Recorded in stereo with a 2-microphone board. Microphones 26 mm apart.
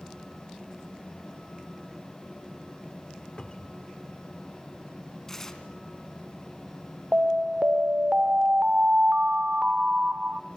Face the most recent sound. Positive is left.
turn(degrees=-50)  # may be behind; listen again after turning